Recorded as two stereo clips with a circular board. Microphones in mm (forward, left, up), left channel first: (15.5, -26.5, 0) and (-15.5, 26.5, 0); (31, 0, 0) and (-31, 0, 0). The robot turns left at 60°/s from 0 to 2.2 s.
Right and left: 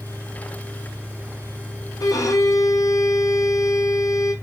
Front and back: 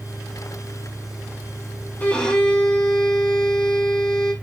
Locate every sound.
2.0 s a violin: 65° right, 1.7 m; by 4.3 s 80° right, 1.7 m